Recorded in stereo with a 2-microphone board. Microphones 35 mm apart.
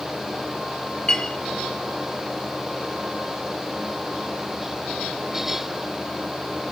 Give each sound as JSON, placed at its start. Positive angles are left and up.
{"t": 1.1, "sound": "a clink", "side_deg": 30, "distance_m": 2.0}